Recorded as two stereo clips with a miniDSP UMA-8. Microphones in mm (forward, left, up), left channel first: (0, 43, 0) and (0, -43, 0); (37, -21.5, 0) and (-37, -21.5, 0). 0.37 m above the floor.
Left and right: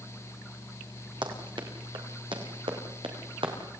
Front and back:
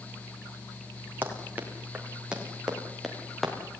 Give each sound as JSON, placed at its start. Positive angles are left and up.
{"t": 1.2, "sound": "running footsteps", "azimuth_deg": -115, "distance_m": 5.5}